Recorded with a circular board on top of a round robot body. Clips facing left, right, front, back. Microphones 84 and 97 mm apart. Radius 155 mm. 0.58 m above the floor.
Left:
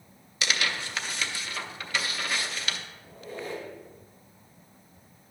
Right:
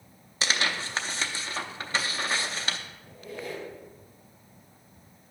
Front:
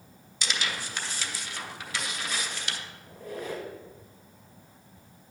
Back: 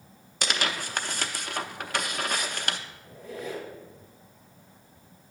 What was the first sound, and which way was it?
Tearing paper, 145° right.